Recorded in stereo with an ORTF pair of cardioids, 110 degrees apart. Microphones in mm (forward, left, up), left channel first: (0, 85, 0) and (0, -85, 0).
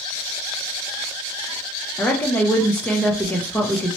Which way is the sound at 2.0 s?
10° left.